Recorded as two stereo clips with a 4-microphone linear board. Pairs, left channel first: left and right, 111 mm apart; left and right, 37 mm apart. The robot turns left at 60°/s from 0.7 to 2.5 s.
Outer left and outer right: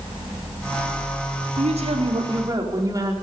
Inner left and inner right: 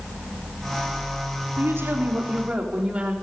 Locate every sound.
1.6 s a woman speaking: 90° right, 4 m; by 3.1 s 145° right, 4 m